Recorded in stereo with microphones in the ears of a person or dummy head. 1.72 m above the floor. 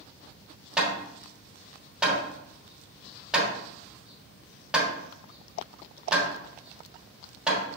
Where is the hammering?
5° right (ahead or behind), 1.4 m.